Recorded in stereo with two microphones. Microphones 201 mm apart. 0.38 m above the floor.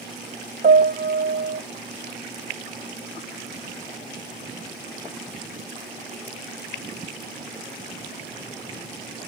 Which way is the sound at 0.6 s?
50° right (ahead or behind).